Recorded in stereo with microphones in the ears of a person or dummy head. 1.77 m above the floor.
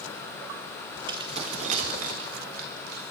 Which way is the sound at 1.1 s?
25° right (ahead or behind).